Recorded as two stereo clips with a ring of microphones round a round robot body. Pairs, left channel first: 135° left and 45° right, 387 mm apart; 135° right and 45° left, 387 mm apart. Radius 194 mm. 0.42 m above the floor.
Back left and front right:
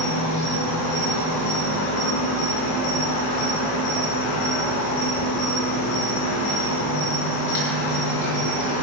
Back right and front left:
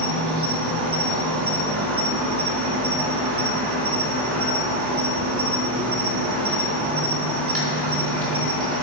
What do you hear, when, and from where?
0.0 s an insect: 100° left, 4 m